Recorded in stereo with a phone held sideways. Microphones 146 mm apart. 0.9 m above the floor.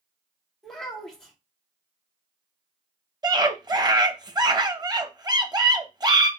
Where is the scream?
30° right (ahead or behind), 0.8 m.